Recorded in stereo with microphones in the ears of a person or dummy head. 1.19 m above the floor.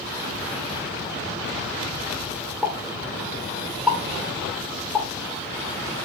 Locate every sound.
2.6 s a pop: 5° left (ahead or behind), 1.2 m